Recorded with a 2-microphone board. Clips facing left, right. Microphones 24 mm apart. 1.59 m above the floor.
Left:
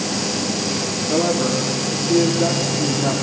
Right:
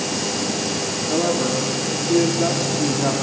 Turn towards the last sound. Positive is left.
turn(degrees=-35)  # may be behind; listen again after turning